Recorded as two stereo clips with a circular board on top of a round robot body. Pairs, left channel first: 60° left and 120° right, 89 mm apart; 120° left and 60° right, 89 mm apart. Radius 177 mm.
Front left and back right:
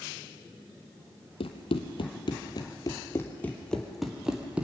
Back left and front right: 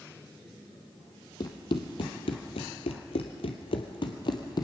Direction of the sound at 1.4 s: 75° left.